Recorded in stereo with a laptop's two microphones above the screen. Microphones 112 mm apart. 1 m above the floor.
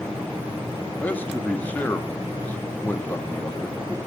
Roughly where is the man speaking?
Centre.